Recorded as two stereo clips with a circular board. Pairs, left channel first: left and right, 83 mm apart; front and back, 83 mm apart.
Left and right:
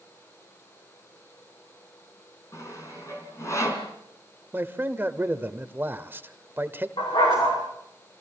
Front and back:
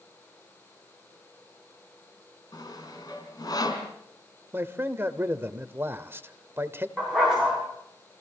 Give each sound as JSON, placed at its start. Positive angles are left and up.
{"t": 2.5, "sound": "sawing", "azimuth_deg": 35, "distance_m": 4.0}
{"t": 4.5, "sound": "a man speaking", "azimuth_deg": -140, "distance_m": 1.1}
{"t": 7.0, "sound": "a dog barking", "azimuth_deg": 95, "distance_m": 9.0}